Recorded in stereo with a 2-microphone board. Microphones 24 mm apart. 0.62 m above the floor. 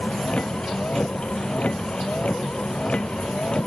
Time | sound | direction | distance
0.0 | a vehicle | 60° left (ahead or behind) | ?